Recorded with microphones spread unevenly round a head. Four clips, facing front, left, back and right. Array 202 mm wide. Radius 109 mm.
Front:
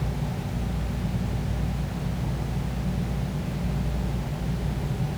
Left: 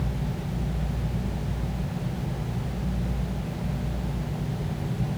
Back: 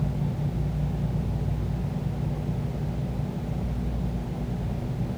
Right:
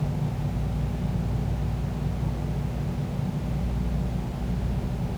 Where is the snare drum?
I don't hear a snare drum.